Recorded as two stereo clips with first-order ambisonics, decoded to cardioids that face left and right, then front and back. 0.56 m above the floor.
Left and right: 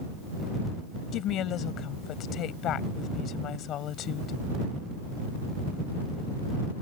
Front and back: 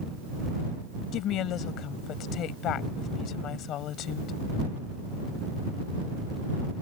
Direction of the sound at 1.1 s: 45° left.